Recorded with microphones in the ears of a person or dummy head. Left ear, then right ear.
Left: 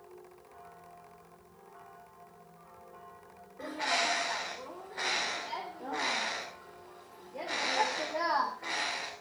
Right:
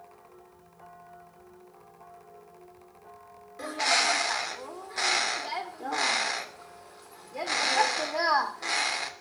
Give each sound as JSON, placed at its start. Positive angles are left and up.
{"t": 3.6, "sound": "a bird", "side_deg": -80, "distance_m": 3.0}